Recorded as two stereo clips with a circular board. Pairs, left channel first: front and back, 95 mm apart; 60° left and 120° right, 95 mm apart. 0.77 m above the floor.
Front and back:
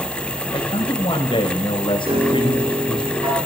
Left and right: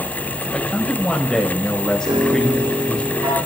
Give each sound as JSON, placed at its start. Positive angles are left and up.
{"t": 0.5, "sound": "a man speaking", "azimuth_deg": -20, "distance_m": 4.0}
{"t": 2.1, "sound": "a piano", "azimuth_deg": -155, "distance_m": 9.0}